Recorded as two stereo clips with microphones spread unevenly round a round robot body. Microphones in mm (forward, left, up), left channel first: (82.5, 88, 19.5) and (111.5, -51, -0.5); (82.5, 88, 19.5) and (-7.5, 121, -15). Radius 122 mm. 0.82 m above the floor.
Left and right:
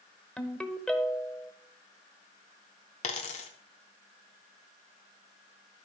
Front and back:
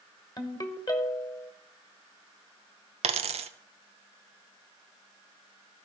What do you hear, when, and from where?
0.4 s a ringtone: 20° left, 1.4 m
3.0 s a dropped coin: 145° left, 0.6 m